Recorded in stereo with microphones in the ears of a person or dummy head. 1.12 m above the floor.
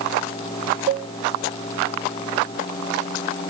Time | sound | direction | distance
0.9 | a cowbell | 45° right (ahead or behind) | 0.6 m